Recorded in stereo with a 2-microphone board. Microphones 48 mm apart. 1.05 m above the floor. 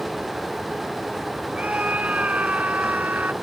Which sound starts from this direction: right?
A scream, at 1.5 s.